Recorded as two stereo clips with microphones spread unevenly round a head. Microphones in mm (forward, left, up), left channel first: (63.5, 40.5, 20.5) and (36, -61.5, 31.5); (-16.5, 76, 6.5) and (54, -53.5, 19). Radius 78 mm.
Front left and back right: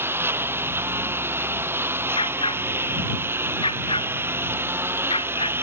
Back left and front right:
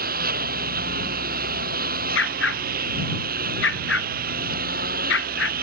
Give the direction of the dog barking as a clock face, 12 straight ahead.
7 o'clock.